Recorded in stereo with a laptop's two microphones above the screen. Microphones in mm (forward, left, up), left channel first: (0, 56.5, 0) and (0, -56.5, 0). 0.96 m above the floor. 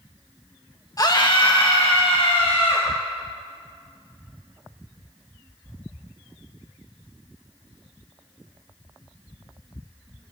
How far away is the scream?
About 1.2 m.